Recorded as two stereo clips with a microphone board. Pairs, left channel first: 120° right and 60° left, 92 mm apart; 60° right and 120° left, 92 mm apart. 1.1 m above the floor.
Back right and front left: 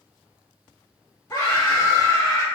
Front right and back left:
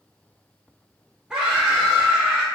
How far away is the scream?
About 1.0 m.